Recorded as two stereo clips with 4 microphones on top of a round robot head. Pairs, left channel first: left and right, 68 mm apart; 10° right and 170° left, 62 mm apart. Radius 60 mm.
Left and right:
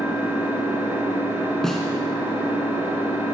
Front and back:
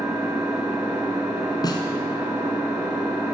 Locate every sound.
0.0 s an engine running: 145° right, 5.5 m
1.6 s a snare drum: 5° left, 2.5 m